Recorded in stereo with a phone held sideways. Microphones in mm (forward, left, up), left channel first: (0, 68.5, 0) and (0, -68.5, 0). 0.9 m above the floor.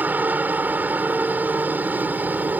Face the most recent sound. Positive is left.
turn(degrees=-10)  # may be behind; listen again after turning